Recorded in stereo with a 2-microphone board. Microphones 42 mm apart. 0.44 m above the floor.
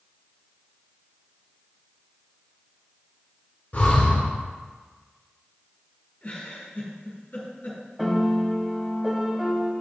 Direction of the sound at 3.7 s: 40° left (ahead or behind).